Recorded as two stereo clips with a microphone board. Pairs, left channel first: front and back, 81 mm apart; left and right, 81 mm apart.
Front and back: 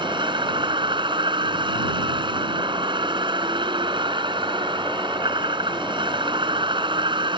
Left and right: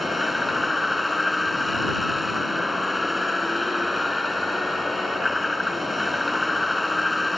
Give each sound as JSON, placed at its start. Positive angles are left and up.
{"t": 0.0, "sound": "a vehicle", "azimuth_deg": 180}